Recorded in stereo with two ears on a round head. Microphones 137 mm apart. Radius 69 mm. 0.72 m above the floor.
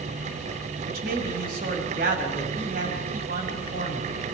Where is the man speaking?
65° right (ahead or behind), 5 m.